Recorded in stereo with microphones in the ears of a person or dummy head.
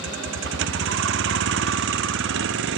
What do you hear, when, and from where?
0.0 s a vehicle: 70° right (ahead or behind)